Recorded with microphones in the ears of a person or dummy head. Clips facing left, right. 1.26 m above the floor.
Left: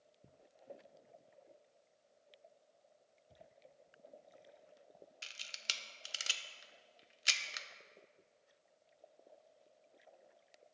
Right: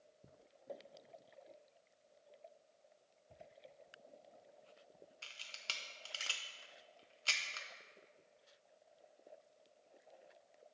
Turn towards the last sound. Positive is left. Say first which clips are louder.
# left 1 dB
turn(degrees=25)  # may be behind; listen again after turning